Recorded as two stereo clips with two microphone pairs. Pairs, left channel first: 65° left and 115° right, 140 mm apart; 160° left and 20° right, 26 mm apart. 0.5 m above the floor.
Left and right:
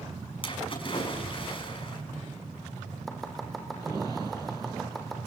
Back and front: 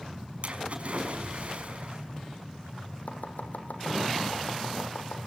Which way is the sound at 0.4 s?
15° left.